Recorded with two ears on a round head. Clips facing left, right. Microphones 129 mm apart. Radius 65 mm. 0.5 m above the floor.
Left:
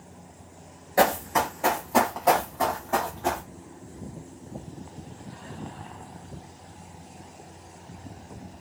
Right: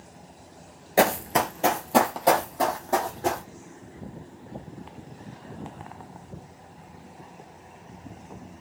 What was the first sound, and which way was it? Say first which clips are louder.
Running footsteps: even; 25° right (ahead or behind).